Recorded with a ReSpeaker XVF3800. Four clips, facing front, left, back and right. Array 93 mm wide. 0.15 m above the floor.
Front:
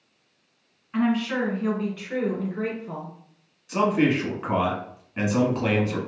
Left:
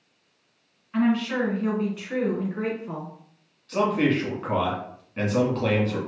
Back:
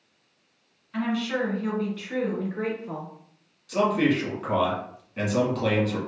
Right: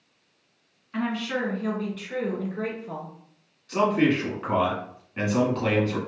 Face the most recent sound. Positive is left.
turn(degrees=-5)